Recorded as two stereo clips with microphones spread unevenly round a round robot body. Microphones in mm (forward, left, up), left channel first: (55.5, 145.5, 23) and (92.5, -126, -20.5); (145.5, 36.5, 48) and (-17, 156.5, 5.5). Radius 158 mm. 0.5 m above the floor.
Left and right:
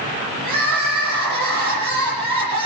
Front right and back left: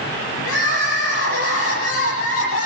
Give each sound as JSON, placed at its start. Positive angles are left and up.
{"t": 0.4, "sound": "crying", "azimuth_deg": -65, "distance_m": 9.0}